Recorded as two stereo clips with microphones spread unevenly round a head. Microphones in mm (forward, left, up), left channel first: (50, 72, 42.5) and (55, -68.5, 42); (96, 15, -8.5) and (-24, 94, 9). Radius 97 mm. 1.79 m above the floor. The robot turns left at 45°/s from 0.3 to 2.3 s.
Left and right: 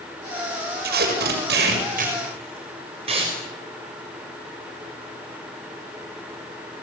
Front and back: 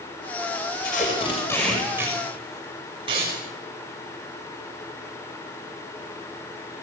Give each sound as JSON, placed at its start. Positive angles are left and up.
{"t": 0.8, "sound": "tape being pulled", "azimuth_deg": -85, "distance_m": 6.0}